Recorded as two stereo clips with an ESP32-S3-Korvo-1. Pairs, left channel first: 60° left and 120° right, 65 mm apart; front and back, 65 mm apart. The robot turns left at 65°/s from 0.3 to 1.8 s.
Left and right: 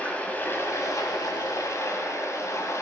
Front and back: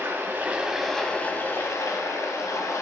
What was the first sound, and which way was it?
Running water, 125° left.